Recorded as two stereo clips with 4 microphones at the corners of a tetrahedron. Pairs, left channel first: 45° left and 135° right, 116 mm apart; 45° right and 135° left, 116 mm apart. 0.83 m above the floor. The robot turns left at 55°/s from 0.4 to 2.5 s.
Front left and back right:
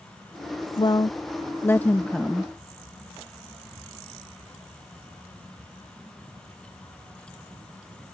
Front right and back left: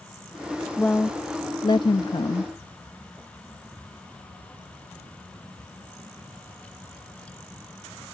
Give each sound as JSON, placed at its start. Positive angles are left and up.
{"t": 0.8, "sound": "a woman speaking", "azimuth_deg": 35}